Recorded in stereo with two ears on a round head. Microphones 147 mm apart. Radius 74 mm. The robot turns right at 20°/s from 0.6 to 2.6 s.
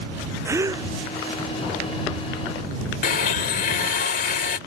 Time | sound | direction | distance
0.5 | a gasp | 20° right (ahead or behind) | ?
3.0 | a blender | 55° left (ahead or behind) | ?